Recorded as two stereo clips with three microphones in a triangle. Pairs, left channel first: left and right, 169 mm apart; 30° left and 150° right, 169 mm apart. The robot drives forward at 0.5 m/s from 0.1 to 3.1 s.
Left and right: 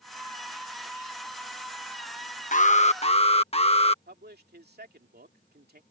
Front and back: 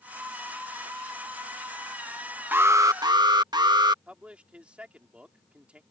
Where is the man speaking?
65° right.